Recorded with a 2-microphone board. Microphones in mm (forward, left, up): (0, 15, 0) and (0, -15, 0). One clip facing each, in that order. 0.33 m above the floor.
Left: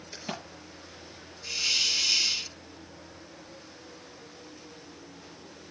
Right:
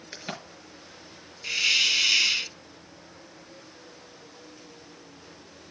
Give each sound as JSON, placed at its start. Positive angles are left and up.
{"t": 0.1, "sound": "a crack", "side_deg": -40, "distance_m": 5.0}
{"t": 1.4, "sound": "a hiss", "side_deg": -45, "distance_m": 0.5}